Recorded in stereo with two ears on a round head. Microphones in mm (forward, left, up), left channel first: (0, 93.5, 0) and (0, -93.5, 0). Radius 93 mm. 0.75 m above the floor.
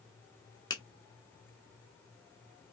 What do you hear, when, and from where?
0.7 s a finger snap: 20° left (ahead or behind), 0.7 m